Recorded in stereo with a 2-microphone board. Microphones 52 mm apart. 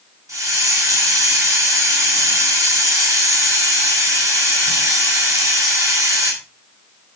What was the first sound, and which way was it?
A hiss, 80° right.